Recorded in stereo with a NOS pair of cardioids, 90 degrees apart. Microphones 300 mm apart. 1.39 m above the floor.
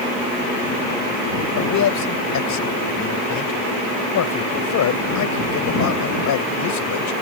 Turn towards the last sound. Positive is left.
turn(degrees=65)